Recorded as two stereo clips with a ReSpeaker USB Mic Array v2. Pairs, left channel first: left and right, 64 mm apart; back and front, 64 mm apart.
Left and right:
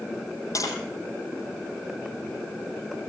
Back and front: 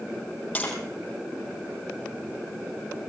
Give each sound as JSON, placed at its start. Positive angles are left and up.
{"t": 0.6, "sound": "tapping", "azimuth_deg": 110, "distance_m": 7.0}